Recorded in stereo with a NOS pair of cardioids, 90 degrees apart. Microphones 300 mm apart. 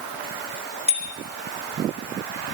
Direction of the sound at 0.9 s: 20° right.